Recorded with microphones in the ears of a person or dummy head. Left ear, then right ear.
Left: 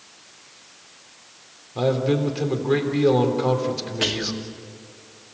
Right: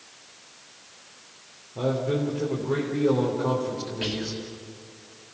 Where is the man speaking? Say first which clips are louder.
Left 5 dB; 50° left (ahead or behind), 3.5 m.